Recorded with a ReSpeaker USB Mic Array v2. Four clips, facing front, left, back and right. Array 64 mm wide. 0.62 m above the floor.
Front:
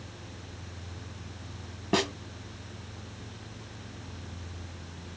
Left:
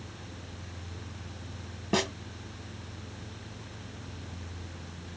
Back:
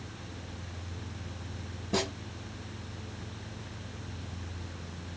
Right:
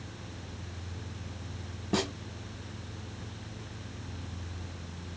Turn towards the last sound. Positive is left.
turn(degrees=30)